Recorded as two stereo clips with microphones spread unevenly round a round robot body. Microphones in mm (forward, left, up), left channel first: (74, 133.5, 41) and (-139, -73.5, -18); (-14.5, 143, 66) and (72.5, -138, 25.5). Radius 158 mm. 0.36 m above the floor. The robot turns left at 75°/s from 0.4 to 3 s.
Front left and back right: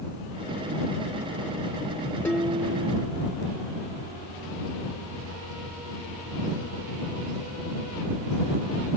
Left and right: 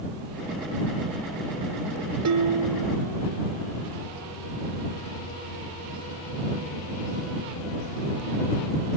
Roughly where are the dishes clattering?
Ahead right.